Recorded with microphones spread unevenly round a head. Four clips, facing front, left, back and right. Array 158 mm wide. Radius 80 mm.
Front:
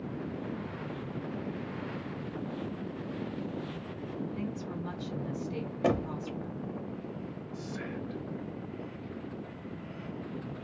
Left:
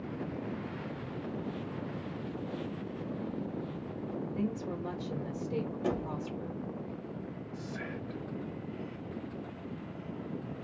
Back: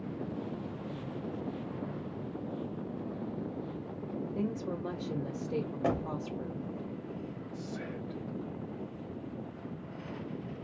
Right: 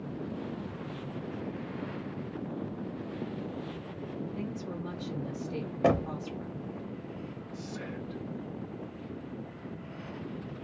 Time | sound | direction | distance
4.3 | a woman speaking | 165° left | 1.4 m
5.8 | knocking | 70° right | 0.7 m
7.5 | whispering | 115° left | 1.0 m